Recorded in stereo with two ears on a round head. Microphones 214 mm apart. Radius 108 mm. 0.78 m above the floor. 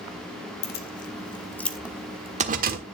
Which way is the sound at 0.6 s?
45° left (ahead or behind).